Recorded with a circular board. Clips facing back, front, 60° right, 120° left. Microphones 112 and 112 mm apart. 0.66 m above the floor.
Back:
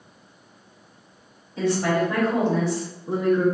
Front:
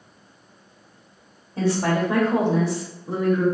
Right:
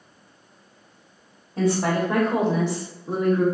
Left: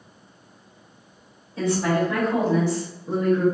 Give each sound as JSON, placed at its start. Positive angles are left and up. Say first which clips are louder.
{"t": 1.6, "sound": "a woman speaking", "louder": "even, even", "azimuth_deg": -25, "distance_m": 1.2}